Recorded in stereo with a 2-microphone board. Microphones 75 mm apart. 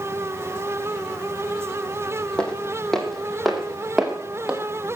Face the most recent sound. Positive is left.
turn(degrees=-10)  # may be behind; listen again after turning